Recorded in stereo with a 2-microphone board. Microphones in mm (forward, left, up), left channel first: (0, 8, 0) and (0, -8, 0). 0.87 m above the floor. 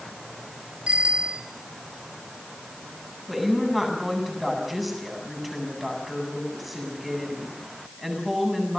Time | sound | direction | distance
0.9 | a bicycle bell | 85° right | 3 m
3.3 | a woman speaking | 15° right (ahead or behind) | 8.5 m